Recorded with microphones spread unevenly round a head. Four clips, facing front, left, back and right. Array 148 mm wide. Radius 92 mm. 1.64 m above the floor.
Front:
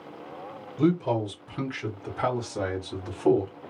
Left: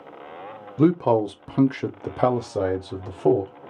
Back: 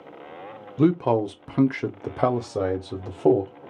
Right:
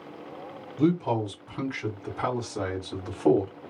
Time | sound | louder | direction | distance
0.8 | a man speaking | left 6 dB, back 4 dB | 100° left | 1.0 m